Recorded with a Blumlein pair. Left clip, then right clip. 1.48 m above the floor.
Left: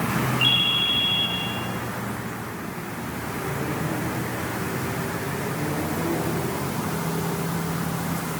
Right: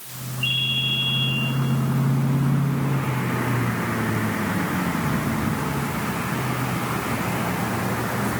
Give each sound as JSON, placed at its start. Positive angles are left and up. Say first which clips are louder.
{"t": 0.4, "sound": "a ringtone", "louder": "left 2 dB", "azimuth_deg": 40, "distance_m": 6.0}